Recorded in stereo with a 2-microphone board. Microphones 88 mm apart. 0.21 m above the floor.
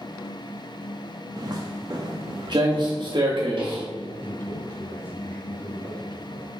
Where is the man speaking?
25° left (ahead or behind), 2.5 m.